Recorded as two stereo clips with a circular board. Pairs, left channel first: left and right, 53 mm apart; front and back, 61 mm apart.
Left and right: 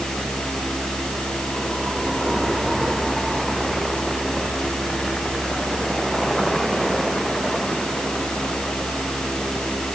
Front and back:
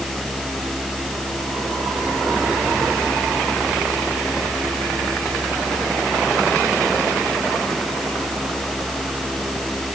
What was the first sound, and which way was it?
Only background noise.